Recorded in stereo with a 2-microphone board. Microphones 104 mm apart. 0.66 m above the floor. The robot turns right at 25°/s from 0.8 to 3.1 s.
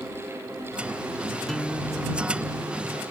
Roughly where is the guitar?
Behind.